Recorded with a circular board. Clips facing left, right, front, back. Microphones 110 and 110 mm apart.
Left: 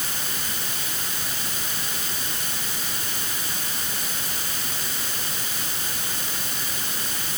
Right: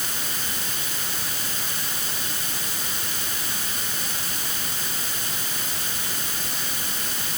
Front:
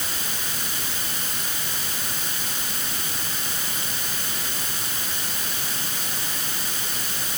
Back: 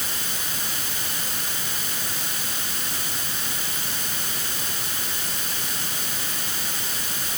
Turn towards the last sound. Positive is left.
No sound to turn to.